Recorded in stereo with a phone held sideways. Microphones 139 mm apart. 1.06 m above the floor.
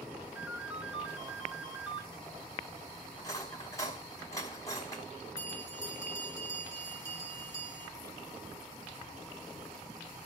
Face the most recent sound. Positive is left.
turn(degrees=25)  # may be behind; listen again after turning